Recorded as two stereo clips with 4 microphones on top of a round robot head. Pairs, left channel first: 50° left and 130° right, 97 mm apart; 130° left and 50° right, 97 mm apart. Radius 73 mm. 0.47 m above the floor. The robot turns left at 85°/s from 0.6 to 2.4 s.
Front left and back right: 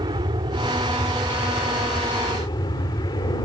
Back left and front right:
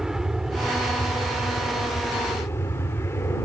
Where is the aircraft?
135° right; by 3.5 s 75° left.